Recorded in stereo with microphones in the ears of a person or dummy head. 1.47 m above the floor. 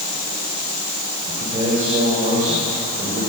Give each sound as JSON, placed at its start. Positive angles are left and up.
{"t": 1.3, "sound": "a man speaking", "side_deg": -40, "distance_m": 7.0}